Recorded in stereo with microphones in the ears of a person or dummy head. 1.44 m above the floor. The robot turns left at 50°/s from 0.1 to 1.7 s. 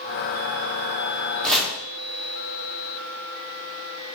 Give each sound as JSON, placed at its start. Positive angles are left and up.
{"t": 1.4, "sound": "chopping", "side_deg": 10, "distance_m": 0.6}